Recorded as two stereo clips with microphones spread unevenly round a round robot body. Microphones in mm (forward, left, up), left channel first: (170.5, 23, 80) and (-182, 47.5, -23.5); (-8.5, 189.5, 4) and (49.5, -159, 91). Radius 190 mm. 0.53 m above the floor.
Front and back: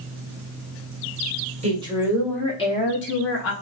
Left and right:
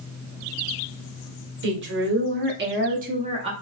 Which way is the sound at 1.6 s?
145° right.